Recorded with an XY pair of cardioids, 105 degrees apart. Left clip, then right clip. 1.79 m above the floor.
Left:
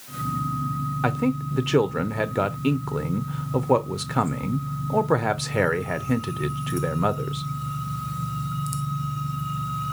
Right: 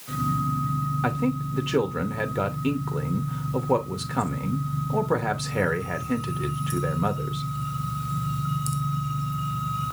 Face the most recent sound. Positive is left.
turn(degrees=30)